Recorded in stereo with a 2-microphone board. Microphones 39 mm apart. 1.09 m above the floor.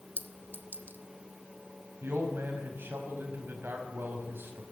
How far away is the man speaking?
About 6 m.